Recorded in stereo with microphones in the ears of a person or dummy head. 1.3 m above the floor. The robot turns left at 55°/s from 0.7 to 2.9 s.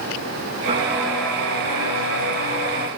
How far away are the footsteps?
About 4 m.